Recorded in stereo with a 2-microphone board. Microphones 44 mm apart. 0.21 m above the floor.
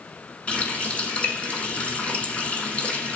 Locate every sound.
0.5 s a running tap: 30° left (ahead or behind), 1.3 m